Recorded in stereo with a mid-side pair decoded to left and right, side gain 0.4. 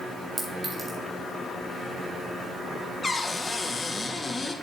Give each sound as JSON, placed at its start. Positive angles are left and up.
{"t": 0.4, "sound": "a clink", "azimuth_deg": -45, "distance_m": 3.0}
{"t": 3.0, "sound": "a cupboard door", "azimuth_deg": 20, "distance_m": 1.5}